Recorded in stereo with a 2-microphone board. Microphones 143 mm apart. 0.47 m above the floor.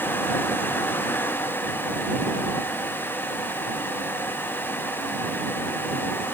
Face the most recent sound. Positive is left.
No sound to turn to.